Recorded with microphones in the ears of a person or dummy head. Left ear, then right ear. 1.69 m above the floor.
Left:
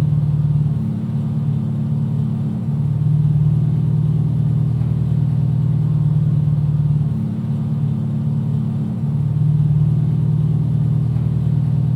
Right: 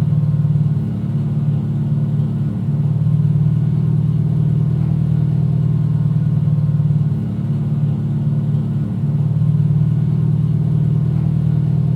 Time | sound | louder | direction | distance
0.0 | an engine running | right 1 dB | 30° left (ahead or behind) | 1.1 m